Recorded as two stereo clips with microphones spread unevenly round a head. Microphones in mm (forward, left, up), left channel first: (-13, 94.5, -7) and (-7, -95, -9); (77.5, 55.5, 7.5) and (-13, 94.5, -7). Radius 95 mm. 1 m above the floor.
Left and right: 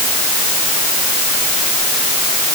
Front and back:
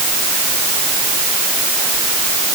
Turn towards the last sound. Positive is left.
No sound to turn to.